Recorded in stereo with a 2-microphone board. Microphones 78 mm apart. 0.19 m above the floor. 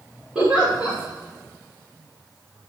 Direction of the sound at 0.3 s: 15° right (ahead or behind).